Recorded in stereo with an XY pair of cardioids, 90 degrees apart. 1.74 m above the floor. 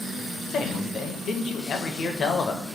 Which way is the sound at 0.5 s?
65° left.